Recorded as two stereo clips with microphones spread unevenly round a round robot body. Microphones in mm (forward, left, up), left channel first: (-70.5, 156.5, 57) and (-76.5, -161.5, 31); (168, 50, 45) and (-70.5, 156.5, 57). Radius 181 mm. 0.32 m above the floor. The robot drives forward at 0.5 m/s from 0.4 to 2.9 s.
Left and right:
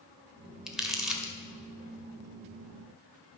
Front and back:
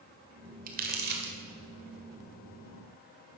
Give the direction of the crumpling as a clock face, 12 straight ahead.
6 o'clock.